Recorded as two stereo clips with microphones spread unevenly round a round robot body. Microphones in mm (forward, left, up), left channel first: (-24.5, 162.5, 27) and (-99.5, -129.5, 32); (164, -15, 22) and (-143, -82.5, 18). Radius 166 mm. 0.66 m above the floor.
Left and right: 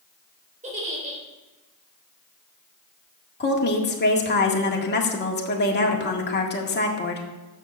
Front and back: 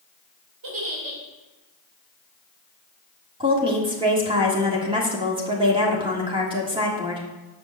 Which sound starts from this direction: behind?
A giggle, at 0.6 s.